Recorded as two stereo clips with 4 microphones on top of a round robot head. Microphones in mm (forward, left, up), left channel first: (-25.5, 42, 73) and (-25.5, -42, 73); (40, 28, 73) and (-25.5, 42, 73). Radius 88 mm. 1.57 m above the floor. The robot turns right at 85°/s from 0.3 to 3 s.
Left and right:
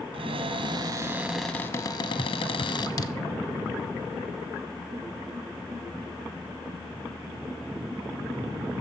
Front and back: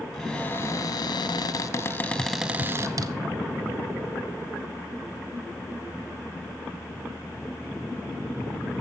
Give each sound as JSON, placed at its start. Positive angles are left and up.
{"t": 0.1, "sound": "a cupboard door", "azimuth_deg": -95, "distance_m": 1.1}